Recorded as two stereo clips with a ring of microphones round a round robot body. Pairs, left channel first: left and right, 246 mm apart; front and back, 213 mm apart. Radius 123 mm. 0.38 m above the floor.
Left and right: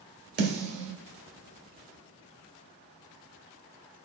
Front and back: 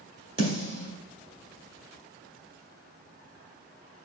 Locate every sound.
0.4 s a snare drum: 120° right, 2 m